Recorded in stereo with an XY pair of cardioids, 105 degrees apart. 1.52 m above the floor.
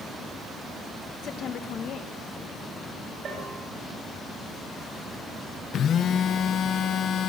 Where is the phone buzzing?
60° left, 1.4 m.